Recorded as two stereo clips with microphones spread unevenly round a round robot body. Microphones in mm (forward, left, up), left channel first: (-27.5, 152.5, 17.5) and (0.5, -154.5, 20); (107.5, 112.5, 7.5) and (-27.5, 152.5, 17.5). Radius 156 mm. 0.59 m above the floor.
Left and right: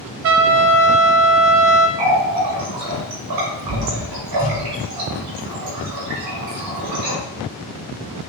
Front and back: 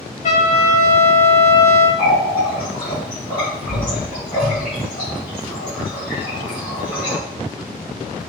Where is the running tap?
85° right, 2 m.